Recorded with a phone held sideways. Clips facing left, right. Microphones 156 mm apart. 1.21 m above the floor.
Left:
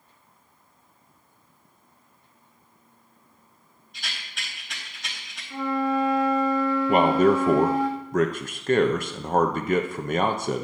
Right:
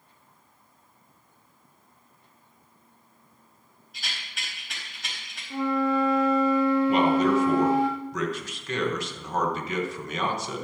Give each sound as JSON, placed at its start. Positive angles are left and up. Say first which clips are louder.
{"t": 3.9, "sound": "a rattle", "louder": "left 1 dB", "side_deg": 0, "distance_m": 5.0}
{"t": 5.5, "sound": "a flute", "louder": "even", "side_deg": -25, "distance_m": 2.0}
{"t": 6.9, "sound": "a man speaking", "louder": "left 2 dB", "side_deg": 50, "distance_m": 0.8}